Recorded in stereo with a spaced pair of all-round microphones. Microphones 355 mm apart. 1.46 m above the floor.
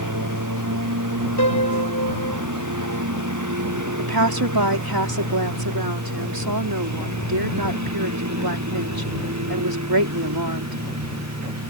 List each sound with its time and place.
0.0 s a lawn mower: 60° right (ahead or behind); by 11.7 s 45° right (ahead or behind)
1.4 s a piano: 50° left (ahead or behind)
4.0 s a woman speaking: 85° right